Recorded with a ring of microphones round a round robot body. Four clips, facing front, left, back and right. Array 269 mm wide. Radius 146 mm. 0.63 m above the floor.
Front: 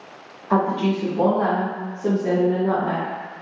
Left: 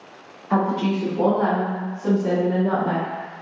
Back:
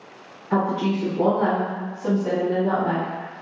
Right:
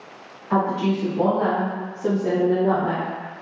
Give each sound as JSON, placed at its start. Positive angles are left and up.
{"t": 0.5, "sound": "a woman speaking", "azimuth_deg": 25, "distance_m": 1.4}